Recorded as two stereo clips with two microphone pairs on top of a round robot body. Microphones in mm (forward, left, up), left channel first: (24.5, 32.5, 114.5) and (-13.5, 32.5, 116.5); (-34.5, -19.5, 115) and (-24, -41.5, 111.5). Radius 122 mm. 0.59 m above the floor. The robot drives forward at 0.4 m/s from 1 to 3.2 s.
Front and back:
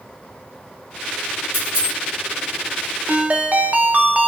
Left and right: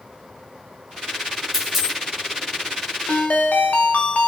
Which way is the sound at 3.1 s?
125° left.